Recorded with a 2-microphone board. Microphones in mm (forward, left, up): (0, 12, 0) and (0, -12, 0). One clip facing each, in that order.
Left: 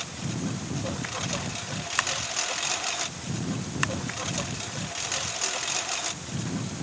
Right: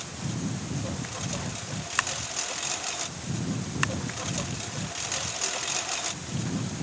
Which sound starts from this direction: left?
A lawn mower, at 0.0 s.